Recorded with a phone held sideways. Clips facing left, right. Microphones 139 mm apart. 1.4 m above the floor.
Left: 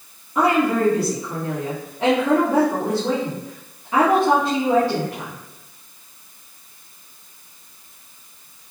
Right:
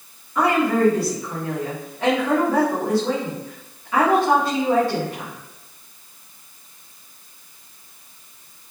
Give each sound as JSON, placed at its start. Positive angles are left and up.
{"t": 0.3, "sound": "a woman speaking", "side_deg": 25, "distance_m": 2.0}